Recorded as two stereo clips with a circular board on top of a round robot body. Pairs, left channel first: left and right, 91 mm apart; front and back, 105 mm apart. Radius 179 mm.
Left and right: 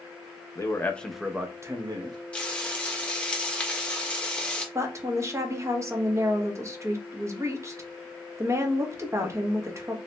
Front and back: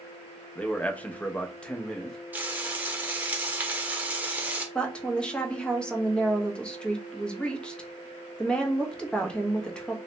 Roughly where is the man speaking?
Left.